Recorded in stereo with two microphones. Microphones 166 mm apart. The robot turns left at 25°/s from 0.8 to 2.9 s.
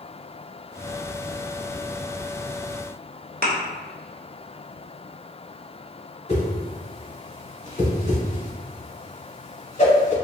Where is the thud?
65° right (ahead or behind), 0.8 m.